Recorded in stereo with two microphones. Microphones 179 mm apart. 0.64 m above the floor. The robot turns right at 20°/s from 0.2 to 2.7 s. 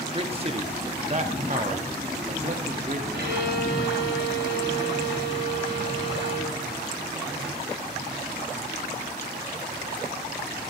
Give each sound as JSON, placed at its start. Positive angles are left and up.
{"t": 0.1, "sound": "a man speaking", "side_deg": -30, "distance_m": 0.7}
{"t": 3.1, "sound": "a violin", "side_deg": -85, "distance_m": 1.9}